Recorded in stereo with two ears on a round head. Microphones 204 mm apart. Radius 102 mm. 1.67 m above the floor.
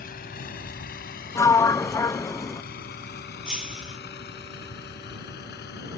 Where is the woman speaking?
I don't hear a woman speaking.